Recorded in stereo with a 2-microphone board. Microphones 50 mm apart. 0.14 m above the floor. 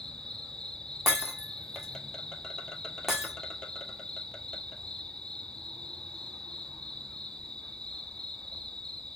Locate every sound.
0.0 s an insect: 15° left (ahead or behind), 1.3 m
1.1 s breaking glass: 10° right (ahead or behind), 2.5 m